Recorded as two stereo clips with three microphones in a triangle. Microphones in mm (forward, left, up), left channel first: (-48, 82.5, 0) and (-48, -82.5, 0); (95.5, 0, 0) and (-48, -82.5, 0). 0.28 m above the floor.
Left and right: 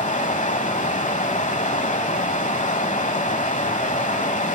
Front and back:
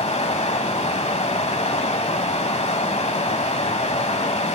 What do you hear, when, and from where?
0.0 s running water: 65° left, 1.0 m